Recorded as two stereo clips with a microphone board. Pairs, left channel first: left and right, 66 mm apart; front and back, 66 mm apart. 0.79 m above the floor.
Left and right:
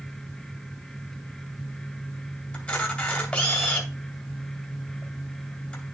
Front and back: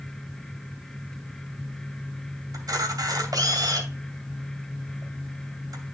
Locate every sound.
2.5 s a camera shutter: 160° left, 2.5 m